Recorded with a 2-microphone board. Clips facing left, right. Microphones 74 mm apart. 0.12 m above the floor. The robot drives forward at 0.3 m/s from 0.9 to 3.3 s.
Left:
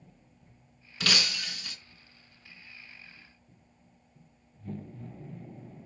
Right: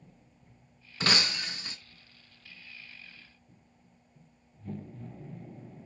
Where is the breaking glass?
30° right (ahead or behind), 0.7 m; by 1.8 s 25° right (ahead or behind), 0.7 m.